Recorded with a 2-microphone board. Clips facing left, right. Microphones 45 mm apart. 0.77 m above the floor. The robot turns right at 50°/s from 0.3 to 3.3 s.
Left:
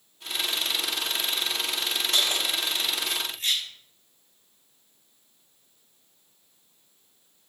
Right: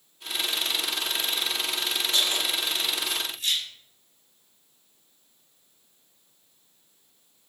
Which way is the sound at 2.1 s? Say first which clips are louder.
Left 1 dB; 85° left.